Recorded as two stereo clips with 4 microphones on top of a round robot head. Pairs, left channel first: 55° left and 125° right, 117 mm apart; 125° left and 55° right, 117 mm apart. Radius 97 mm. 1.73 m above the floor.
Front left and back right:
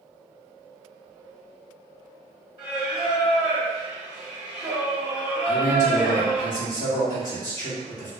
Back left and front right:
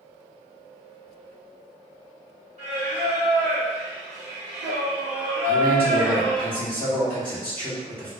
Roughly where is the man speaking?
Ahead left.